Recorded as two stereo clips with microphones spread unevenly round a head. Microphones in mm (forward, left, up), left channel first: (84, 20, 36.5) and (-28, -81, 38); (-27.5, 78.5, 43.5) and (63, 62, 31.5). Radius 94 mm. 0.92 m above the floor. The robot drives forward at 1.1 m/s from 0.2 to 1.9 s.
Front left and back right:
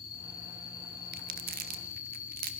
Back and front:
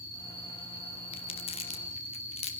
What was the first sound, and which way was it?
An insect, 25° left.